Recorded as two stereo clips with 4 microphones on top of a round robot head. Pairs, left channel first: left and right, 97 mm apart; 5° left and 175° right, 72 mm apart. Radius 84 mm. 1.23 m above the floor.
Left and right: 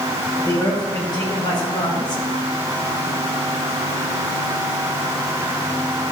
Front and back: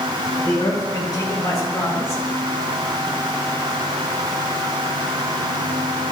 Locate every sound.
0.4 s a man speaking: 40° left, 5 m; by 2.2 s 50° left, 3 m